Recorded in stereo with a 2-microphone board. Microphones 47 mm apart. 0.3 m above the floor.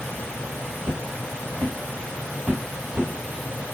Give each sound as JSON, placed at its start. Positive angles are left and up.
{"t": 0.8, "sound": "footsteps", "side_deg": -75, "distance_m": 1.0}